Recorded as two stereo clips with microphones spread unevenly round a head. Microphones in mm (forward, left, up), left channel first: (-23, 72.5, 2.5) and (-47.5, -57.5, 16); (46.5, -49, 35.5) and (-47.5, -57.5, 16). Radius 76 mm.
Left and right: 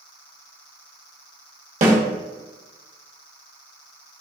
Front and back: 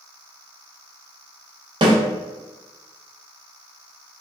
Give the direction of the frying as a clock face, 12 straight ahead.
I don't hear frying.